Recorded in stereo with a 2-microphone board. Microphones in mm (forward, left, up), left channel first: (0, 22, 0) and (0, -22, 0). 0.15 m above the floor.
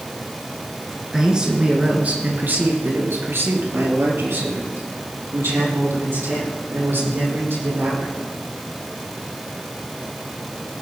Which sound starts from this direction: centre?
A man speaking, at 1.1 s.